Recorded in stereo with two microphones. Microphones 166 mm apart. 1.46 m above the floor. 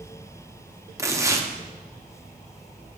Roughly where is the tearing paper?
Centre.